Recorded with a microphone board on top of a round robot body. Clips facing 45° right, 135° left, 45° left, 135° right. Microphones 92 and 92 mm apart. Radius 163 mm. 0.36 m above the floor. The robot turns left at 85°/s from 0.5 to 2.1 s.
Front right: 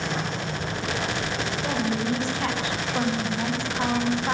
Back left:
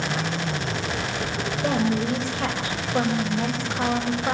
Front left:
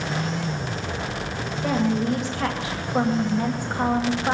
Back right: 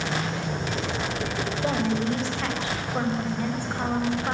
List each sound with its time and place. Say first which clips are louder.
1.6 s a woman speaking: back left 4 dB, front left 3 dB; 160° left, 3 m; by 4.3 s 120° left, 3 m